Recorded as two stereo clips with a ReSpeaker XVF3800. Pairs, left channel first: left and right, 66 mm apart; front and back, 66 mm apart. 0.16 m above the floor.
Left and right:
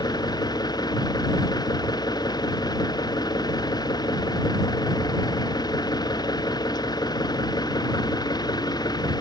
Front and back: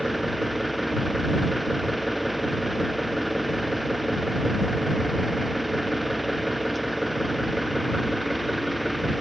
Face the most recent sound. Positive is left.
turn(degrees=90)